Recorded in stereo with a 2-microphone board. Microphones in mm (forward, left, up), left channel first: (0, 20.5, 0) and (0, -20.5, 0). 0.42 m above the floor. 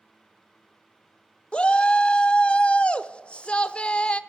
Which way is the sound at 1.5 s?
30° left (ahead or behind).